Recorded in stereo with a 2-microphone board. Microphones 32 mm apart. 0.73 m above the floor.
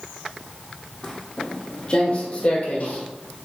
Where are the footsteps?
15° left (ahead or behind), 1.6 m; by 3.1 s 50° left (ahead or behind), 1.9 m.